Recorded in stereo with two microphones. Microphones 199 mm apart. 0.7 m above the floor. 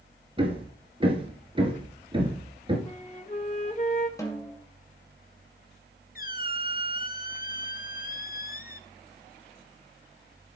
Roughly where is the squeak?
Left.